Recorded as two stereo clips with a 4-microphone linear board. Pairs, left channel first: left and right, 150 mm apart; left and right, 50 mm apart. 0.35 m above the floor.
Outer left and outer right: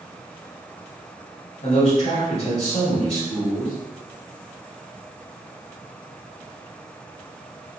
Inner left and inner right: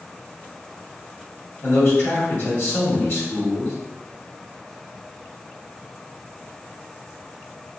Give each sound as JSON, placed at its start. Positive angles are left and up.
{"t": 1.6, "sound": "a man speaking", "side_deg": 45, "distance_m": 1.4}